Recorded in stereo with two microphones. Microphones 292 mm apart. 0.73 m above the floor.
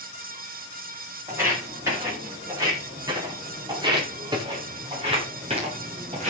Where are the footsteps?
10° right (ahead or behind), 8.5 m; by 6.3 s 25° right (ahead or behind), 5 m.